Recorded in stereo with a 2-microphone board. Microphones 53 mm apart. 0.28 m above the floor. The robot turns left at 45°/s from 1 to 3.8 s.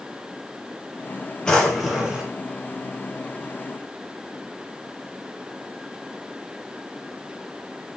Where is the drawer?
15° left, 4 m; by 2.3 s 20° right, 4 m.